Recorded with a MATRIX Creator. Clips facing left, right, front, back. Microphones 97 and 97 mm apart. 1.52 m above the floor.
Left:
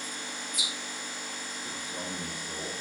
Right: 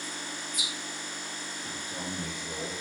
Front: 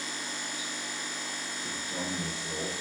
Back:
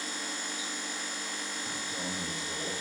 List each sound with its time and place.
1.6 s a man speaking: 15° right, 4.5 m; by 2.7 s 25° right, 4 m